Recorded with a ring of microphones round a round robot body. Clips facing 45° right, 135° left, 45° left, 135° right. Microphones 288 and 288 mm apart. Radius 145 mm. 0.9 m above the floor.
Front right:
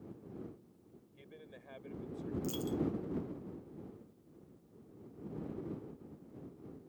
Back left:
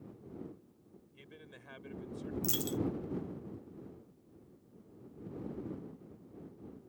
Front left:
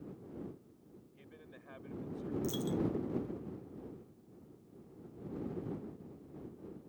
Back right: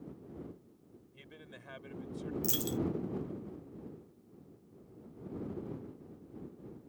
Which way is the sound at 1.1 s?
165° right.